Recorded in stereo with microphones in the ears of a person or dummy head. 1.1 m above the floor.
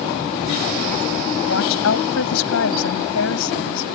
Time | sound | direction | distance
1.4 | a woman speaking | 85° left | ?